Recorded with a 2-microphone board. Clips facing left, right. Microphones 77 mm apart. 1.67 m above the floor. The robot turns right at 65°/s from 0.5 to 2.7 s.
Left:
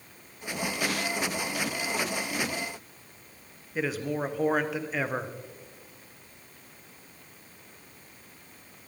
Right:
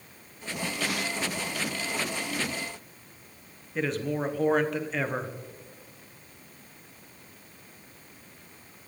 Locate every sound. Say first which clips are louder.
3.8 s a man speaking: right 1 dB; 5° left (ahead or behind), 1.3 m